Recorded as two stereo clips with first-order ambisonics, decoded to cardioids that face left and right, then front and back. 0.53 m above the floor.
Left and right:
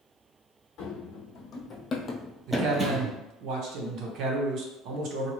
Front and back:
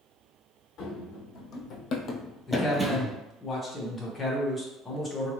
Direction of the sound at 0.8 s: 40° left.